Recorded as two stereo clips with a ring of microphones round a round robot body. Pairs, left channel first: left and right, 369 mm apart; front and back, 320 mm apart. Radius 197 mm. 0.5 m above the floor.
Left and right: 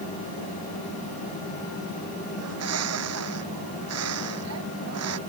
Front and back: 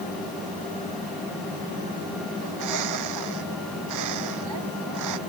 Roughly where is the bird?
Behind right.